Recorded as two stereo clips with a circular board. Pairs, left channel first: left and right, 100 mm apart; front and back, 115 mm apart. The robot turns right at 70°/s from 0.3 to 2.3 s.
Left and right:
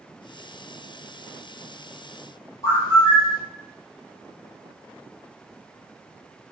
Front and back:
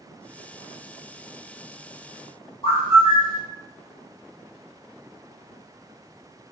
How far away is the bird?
About 1.1 m.